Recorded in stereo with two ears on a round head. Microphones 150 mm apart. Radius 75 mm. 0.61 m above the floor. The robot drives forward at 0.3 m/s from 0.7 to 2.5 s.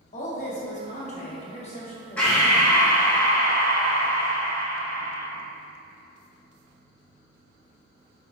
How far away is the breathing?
About 1.5 m.